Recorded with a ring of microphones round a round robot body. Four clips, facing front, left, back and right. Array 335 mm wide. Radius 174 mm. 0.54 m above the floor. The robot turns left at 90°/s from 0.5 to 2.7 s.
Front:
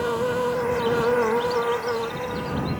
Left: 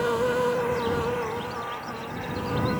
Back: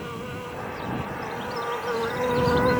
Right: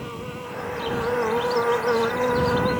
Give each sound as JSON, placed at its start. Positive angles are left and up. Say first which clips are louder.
{"t": 0.0, "sound": "an insect", "louder": "left 11 dB, front 11 dB", "azimuth_deg": 45}